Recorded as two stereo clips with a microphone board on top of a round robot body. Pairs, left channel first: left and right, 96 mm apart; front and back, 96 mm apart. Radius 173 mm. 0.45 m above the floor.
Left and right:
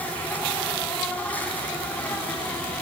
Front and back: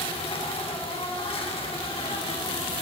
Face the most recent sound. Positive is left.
turn(degrees=15)